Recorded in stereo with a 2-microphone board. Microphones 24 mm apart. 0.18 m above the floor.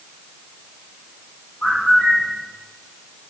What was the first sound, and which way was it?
A bird, 70° left (ahead or behind).